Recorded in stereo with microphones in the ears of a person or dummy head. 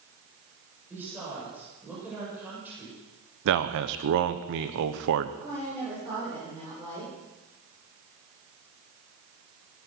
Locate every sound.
0.9 s a woman speaking: 5° right (ahead or behind), 7.5 m
3.5 s a man speaking: 70° right (ahead or behind), 1.0 m
5.4 s a woman speaking: 20° right (ahead or behind), 8.5 m